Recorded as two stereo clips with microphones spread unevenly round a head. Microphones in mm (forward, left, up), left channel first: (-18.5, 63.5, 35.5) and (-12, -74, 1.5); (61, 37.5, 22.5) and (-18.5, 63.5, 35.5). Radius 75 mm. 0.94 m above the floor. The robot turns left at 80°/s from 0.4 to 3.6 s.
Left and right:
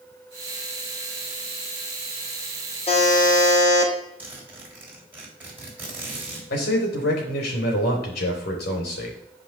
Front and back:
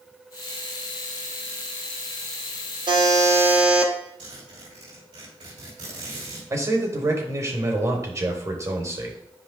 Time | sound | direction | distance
2.9 | a buzzer | 145° left | 2.5 m
4.2 | a zipper | 165° right | 3.5 m
6.5 | a man speaking | 110° left | 3 m